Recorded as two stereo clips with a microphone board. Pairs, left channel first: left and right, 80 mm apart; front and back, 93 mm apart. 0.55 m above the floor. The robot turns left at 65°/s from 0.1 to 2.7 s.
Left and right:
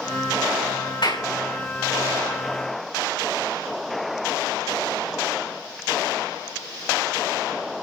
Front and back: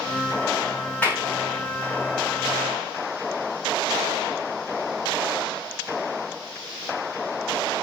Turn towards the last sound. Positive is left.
turn(degrees=-40)